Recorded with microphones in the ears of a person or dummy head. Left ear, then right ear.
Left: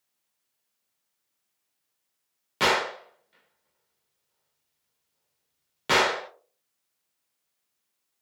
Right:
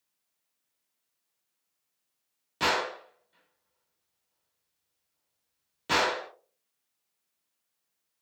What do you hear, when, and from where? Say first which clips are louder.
2.6 s a gunshot: left 4 dB; 35° left (ahead or behind), 0.7 m